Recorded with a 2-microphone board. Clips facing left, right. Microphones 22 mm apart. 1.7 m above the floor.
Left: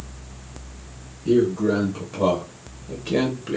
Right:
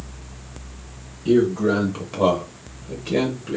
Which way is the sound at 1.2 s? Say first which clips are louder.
Right 1 dB; 60° right (ahead or behind).